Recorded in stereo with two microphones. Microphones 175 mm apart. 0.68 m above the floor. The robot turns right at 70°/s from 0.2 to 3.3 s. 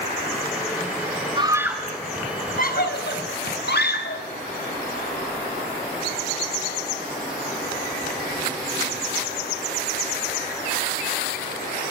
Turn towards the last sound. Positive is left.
turn(degrees=70)  # may be behind; listen again after turning